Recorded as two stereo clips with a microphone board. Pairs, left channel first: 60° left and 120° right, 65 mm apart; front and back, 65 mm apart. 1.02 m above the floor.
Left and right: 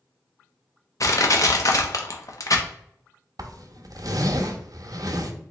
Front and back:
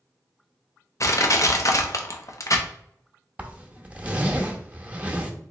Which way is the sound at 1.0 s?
30° left.